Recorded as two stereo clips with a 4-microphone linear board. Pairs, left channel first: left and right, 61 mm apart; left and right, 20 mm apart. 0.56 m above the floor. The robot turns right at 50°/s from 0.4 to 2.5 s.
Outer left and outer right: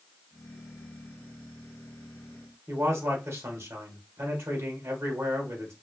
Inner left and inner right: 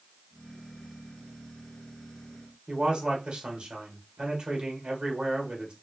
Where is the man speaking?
45° right (ahead or behind), 1.4 m.